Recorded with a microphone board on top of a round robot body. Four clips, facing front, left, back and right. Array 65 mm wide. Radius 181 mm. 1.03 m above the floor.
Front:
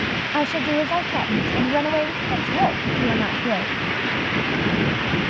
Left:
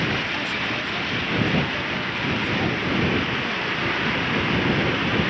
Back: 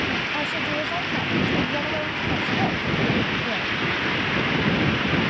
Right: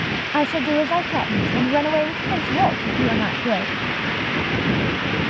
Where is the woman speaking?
60° right.